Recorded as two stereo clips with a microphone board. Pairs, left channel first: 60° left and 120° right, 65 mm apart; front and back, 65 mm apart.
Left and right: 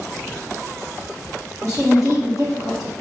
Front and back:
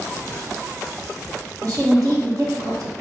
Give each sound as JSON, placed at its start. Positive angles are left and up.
{"t": 1.6, "sound": "a woman speaking", "azimuth_deg": -150, "distance_m": 1.4}